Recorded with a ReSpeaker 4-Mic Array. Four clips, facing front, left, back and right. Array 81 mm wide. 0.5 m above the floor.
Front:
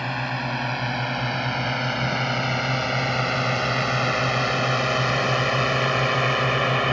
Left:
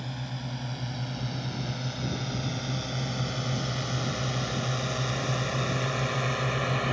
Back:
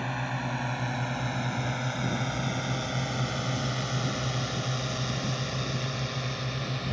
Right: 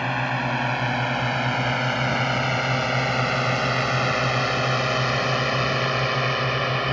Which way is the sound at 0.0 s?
70° right.